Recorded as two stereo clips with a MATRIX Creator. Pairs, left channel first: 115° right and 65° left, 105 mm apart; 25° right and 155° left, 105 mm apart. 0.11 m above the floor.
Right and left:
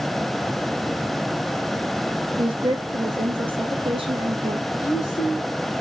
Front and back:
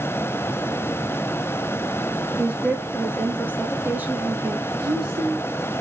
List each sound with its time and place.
2.4 s a woman speaking: 85° left, 2.5 m
4.8 s a woman speaking: 165° right, 5.5 m